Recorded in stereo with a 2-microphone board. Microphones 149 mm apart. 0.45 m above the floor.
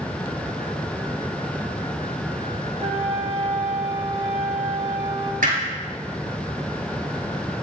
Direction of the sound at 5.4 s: 65° right (ahead or behind).